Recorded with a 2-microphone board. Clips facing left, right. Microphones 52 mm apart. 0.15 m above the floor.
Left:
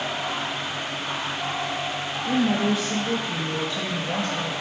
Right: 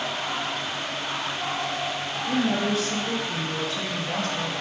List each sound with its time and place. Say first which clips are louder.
2.3 s a woman speaking: left 2 dB; 25° left (ahead or behind), 3 m